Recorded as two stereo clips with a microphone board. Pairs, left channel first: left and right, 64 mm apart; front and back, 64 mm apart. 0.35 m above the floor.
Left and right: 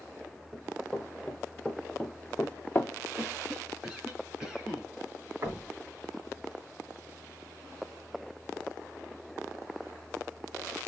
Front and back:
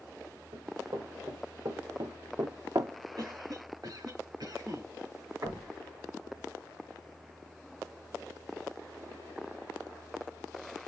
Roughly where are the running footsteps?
Behind.